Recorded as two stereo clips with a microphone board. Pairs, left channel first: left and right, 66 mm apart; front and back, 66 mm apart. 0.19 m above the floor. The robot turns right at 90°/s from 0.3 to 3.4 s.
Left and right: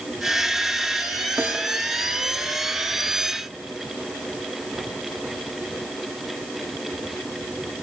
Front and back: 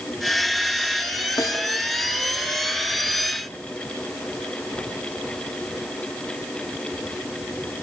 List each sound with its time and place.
1.4 s a snare drum: 30° right, 2.5 m; by 1.6 s 10° right, 2.5 m